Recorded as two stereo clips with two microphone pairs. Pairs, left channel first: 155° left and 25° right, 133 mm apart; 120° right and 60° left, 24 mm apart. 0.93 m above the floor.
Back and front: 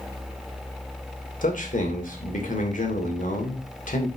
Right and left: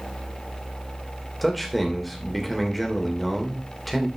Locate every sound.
1.4 s a man speaking: 155° left, 2.5 m